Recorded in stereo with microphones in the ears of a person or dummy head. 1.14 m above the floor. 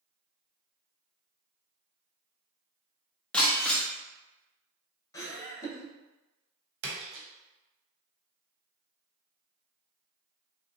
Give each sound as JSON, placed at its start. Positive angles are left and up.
{"t": 3.3, "sound": "breaking glass", "side_deg": 10, "distance_m": 0.6}
{"t": 5.1, "sound": "laughter", "side_deg": 15, "distance_m": 0.8}
{"t": 6.8, "sound": "a splash", "side_deg": -75, "distance_m": 1.1}